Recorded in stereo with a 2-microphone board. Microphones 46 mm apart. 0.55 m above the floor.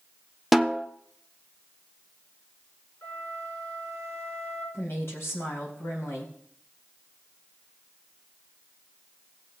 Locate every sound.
0.5 s a snare drum: 5° right (ahead or behind), 0.6 m
3.0 s a flute: 70° left (ahead or behind), 5.5 m
4.7 s a woman speaking: 65° left (ahead or behind), 3.5 m